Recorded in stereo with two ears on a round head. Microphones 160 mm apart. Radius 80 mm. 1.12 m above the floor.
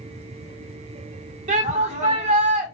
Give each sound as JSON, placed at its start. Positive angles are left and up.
{"t": 1.5, "sound": "a shout", "side_deg": -40, "distance_m": 4.0}